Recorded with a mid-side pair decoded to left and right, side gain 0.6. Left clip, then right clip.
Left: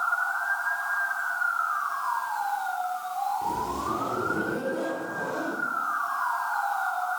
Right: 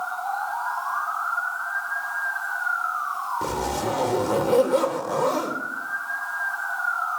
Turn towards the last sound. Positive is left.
turn(degrees=-65)